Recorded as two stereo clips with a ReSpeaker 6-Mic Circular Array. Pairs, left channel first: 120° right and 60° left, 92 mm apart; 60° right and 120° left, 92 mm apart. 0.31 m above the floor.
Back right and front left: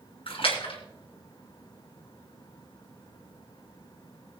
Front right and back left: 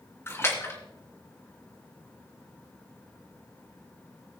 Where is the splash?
120° right, 2.5 m.